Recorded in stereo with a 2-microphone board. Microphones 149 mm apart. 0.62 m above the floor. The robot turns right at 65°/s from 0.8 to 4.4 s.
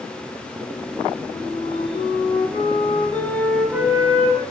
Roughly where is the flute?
Ahead left.